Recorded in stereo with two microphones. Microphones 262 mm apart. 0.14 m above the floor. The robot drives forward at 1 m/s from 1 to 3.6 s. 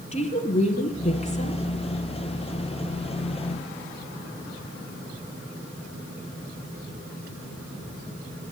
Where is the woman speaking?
25° left (ahead or behind), 2 m; by 1.6 s 30° left (ahead or behind), 1.8 m.